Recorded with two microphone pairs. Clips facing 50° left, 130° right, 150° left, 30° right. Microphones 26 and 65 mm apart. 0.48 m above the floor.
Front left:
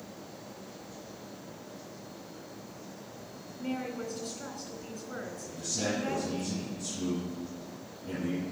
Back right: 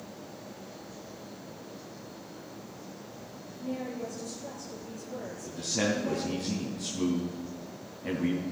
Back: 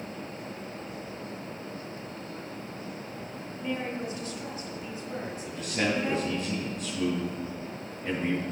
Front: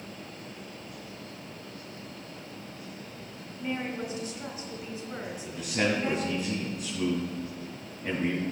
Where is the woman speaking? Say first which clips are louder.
Even, even; 45° left, 2.5 m.